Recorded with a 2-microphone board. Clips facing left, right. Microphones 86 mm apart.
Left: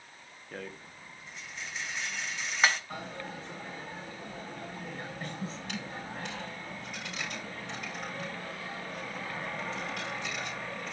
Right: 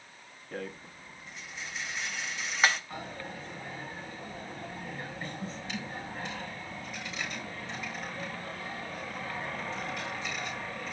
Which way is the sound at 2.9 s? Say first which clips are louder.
Even; 60° left (ahead or behind).